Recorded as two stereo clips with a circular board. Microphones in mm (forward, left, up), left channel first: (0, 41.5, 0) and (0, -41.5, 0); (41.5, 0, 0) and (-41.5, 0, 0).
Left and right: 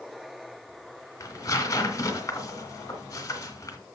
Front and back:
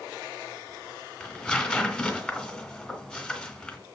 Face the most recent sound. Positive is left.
turn(degrees=70)